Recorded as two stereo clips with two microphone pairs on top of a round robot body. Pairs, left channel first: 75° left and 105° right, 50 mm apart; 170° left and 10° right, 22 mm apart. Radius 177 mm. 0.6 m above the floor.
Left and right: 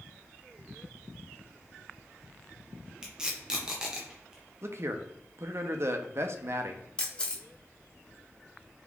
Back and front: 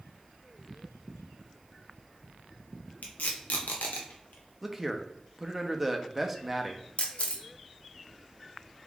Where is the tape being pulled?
Straight behind, 0.6 m.